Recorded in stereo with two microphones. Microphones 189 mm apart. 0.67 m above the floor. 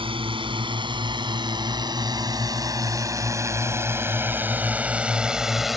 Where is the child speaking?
I don't hear a child speaking.